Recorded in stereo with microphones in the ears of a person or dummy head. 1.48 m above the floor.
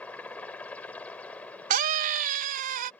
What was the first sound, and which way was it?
A helicopter, 10° left (ahead or behind).